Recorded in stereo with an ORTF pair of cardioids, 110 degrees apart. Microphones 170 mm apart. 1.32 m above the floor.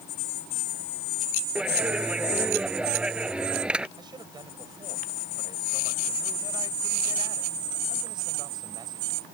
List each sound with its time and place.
1.6 s a clap: 5° right
4.0 s a man speaking: 25° right